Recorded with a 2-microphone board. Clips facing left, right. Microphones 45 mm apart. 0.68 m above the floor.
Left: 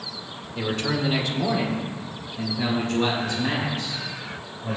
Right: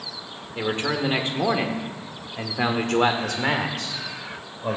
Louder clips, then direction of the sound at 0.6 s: Right 1 dB; 20° right (ahead or behind).